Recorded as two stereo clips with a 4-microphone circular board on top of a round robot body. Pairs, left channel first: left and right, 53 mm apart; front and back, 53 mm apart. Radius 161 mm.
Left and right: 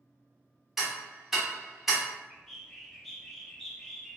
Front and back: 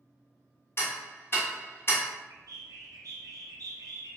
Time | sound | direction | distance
0.8 | ticking | 5° right | 1.4 m
2.3 | a bird | 175° left | 0.6 m